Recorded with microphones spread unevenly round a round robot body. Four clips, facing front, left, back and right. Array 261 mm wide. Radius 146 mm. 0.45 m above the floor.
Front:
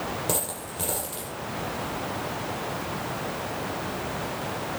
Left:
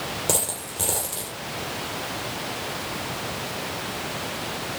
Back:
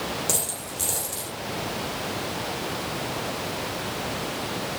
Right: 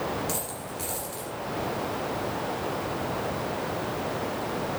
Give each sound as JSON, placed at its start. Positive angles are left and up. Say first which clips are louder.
{"t": 0.3, "sound": "a dropped coin", "louder": "left 4 dB, front 1 dB", "azimuth_deg": 65, "distance_m": 5.0}